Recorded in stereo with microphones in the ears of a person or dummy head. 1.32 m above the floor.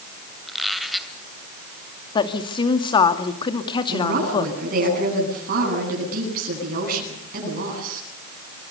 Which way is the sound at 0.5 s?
Centre (ahead or behind).